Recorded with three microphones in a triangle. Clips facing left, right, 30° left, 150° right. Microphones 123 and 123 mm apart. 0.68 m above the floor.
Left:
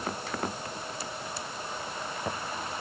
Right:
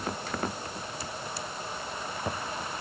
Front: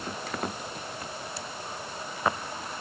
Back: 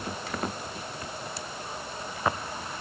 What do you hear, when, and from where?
Only background noise.